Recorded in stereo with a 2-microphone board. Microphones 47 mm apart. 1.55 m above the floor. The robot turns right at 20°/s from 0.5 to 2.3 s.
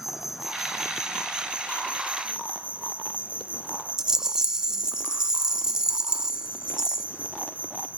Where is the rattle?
15° right (ahead or behind), 0.7 m.